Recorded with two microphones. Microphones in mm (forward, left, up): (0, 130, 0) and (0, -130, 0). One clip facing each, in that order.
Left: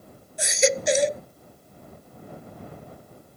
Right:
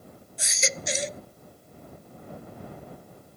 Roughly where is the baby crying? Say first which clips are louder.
Left 12 dB; left.